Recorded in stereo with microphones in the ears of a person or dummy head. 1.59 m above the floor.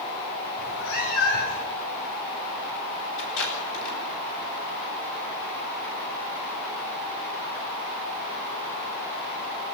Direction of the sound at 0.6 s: 70° left (ahead or behind).